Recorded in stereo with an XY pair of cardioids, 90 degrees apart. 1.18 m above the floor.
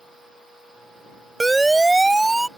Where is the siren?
15° right; by 2.5 s 10° right.